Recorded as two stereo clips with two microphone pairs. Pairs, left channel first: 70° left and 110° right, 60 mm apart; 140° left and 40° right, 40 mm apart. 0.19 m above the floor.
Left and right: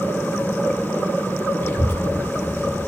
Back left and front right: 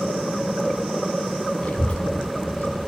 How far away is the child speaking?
About 1.2 m.